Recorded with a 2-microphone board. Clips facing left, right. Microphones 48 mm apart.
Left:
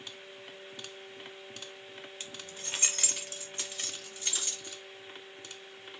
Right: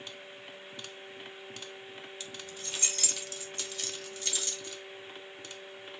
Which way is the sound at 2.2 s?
45° left (ahead or behind).